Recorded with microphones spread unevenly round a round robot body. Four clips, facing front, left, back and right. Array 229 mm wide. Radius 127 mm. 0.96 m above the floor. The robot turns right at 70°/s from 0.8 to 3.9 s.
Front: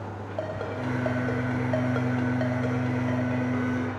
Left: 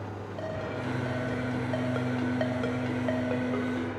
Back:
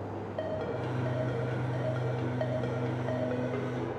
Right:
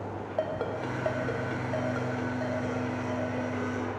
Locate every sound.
0.4 s a ringtone: 55° right, 2.5 m; by 3.9 s 160° left, 2.5 m